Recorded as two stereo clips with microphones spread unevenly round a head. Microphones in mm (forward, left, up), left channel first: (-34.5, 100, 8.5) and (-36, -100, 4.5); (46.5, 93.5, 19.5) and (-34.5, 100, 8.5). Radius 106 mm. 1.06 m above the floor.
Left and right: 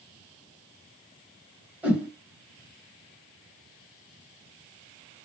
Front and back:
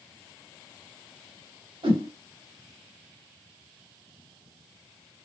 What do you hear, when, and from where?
1.8 s a whoosh: 175° right, 1.4 m